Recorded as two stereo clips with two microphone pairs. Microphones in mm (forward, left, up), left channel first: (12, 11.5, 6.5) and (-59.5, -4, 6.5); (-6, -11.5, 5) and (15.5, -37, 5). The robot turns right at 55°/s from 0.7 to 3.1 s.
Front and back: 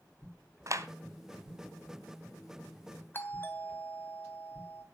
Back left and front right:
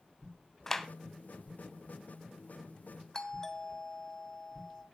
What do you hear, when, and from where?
0.7 s a clap: 160° right, 1.6 m; by 0.9 s 150° right, 1.6 m
3.1 s a doorbell: 60° left, 2.5 m